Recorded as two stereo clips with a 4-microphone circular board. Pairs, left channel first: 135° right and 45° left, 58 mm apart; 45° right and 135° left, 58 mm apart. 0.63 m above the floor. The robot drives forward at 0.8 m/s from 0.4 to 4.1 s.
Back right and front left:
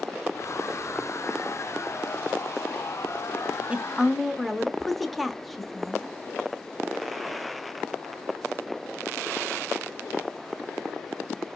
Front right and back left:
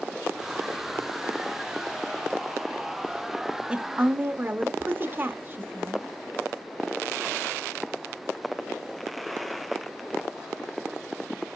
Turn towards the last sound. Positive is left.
turn(degrees=135)